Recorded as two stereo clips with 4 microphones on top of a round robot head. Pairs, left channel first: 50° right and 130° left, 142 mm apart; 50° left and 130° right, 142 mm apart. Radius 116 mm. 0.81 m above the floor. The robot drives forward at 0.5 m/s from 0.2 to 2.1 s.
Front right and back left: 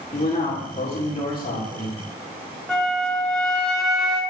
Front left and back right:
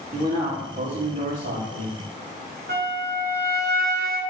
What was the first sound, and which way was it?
A man speaking, 90° right.